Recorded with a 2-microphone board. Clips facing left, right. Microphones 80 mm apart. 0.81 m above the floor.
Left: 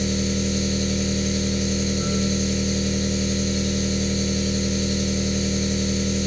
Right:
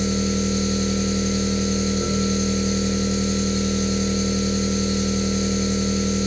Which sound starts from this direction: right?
An engine running, at 0.0 s.